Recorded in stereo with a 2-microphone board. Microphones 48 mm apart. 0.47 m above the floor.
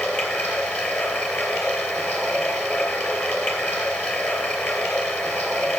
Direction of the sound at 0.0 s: 35° left (ahead or behind).